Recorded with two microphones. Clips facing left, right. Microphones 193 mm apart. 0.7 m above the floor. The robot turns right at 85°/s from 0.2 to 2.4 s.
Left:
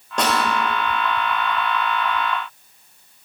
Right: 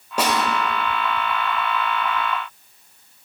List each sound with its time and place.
0.2 s a snare drum: 10° right (ahead or behind), 2.5 m; by 0.4 s 30° right (ahead or behind), 2.5 m